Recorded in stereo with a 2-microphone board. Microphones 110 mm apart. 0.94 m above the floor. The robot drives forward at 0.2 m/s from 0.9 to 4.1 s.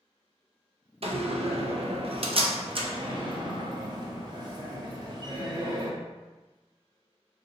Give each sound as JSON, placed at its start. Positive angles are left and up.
{"t": 1.0, "sound": "a door slam", "side_deg": -65, "distance_m": 0.5}